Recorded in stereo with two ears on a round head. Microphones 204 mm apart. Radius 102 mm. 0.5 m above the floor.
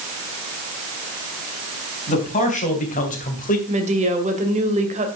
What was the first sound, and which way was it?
A man speaking, 35° left (ahead or behind).